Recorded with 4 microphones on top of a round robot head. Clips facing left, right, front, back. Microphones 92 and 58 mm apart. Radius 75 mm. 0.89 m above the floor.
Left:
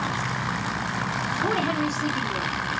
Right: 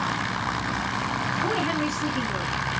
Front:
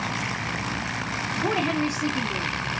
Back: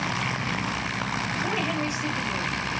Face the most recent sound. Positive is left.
turn(degrees=15)